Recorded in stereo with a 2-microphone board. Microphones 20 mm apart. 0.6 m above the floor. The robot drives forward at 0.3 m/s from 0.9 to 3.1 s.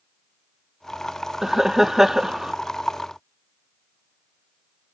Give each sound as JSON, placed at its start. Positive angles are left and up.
{"t": 1.4, "sound": "laughter", "side_deg": -20}